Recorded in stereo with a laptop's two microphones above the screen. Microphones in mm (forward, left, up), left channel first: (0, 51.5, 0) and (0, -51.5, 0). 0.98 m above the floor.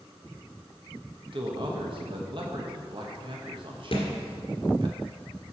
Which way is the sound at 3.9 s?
60° left (ahead or behind).